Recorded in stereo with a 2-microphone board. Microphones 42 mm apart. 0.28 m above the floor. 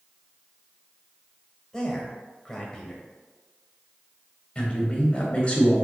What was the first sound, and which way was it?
A man speaking, 20° left (ahead or behind).